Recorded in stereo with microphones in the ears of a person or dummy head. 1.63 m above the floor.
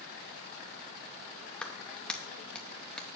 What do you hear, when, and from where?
1.6 s a clap: centre (ahead or behind), 0.7 m